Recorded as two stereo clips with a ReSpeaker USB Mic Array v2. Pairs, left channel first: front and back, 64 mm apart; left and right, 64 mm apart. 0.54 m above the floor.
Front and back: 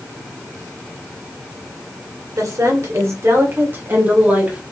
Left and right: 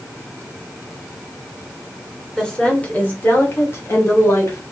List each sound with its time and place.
2.4 s a woman speaking: 165° left, 2 m; by 4.6 s 115° left, 2.5 m